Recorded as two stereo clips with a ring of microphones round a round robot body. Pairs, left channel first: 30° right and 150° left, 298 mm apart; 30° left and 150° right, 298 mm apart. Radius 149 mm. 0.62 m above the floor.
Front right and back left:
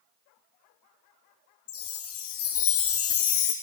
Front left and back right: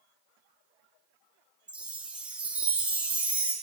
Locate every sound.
1.7 s a chime: 65° right, 0.6 m